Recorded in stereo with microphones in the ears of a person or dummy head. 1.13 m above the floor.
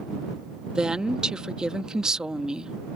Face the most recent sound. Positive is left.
turn(degrees=-5)  # may be behind; listen again after turning